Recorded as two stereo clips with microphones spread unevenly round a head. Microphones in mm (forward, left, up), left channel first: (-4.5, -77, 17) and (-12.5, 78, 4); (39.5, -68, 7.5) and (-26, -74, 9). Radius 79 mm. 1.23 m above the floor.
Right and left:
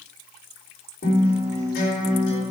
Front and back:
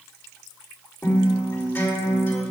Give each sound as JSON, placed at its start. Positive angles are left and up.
{"t": 1.0, "sound": "a guitar", "azimuth_deg": -45, "distance_m": 3.5}